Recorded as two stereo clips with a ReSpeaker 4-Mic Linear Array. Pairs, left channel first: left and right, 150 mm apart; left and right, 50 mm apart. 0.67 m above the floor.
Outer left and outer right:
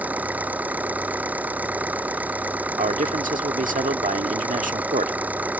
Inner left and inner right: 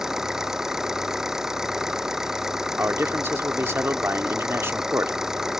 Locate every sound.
0.0 s an engine running: 10° right (ahead or behind)
2.8 s a man speaking: 65° right (ahead or behind)